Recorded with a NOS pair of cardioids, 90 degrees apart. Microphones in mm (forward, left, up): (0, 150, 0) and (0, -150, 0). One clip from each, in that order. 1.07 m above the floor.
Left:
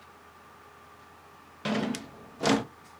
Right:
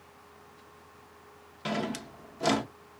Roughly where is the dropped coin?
I don't hear a dropped coin.